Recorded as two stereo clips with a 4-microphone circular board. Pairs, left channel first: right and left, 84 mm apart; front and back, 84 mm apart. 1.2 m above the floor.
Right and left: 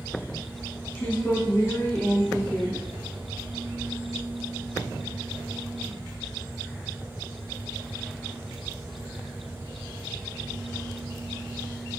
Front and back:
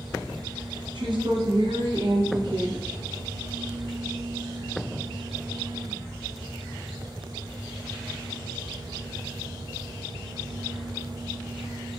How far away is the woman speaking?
About 0.8 m.